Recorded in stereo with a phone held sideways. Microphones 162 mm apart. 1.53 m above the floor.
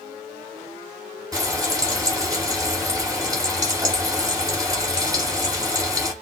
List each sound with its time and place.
1.3 s frying: 20° right (ahead or behind), 2 m